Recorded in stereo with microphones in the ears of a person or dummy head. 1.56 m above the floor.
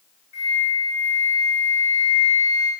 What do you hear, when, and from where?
0.3 s a flute: 55° left (ahead or behind), 4.5 m